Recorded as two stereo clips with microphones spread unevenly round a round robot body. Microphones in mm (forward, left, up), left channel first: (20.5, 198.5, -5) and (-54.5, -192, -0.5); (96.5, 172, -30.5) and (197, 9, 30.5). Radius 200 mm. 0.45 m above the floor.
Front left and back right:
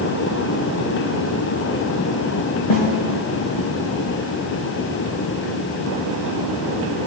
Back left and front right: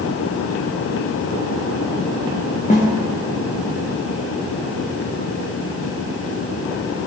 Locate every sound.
2.7 s a snare drum: 70° left, 5.5 m